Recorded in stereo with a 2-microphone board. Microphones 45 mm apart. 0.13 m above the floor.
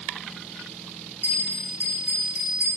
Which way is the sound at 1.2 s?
35° right (ahead or behind).